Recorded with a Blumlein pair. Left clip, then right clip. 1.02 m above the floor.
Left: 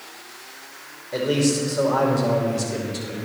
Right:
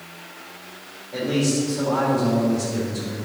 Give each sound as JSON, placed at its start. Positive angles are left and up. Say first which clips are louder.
{"t": 1.1, "sound": "a man speaking", "louder": "left 2 dB", "azimuth_deg": 65, "distance_m": 3.5}